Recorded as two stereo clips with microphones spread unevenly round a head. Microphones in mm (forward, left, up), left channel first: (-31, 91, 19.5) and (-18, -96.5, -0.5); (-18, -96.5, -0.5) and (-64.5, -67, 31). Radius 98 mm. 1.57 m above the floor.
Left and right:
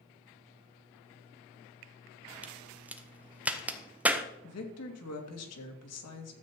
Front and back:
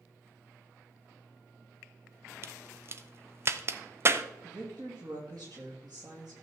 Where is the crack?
170° right, 1.0 m.